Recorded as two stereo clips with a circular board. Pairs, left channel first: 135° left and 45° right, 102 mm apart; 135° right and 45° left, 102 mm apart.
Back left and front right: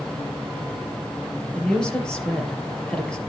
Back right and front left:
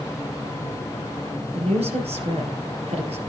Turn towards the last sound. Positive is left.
turn(degrees=55)